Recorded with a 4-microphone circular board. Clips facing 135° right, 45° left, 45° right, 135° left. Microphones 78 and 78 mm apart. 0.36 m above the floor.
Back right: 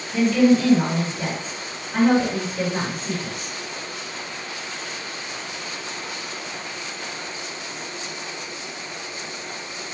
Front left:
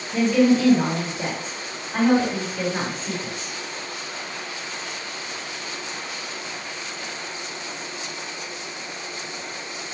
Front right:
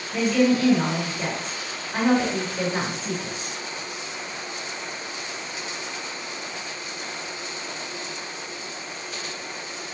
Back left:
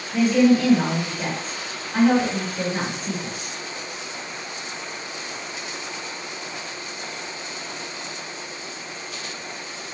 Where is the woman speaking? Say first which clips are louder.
Back right 1 dB, back left 3 dB; 50° left, 1.6 m; by 3.5 s 70° right, 1.8 m.